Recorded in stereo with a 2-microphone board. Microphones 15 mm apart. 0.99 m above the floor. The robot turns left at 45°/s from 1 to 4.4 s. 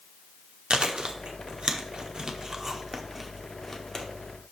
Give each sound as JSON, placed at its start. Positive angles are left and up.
{"t": 0.7, "sound": "chewing", "side_deg": -75, "distance_m": 1.2}